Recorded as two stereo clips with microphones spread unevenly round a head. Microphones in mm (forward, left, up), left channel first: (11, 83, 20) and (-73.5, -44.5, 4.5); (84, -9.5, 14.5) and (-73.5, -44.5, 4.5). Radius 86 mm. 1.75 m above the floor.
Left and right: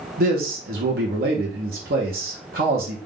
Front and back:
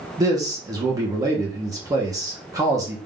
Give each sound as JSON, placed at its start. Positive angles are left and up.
{"t": 0.2, "sound": "a man speaking", "azimuth_deg": -100, "distance_m": 1.0}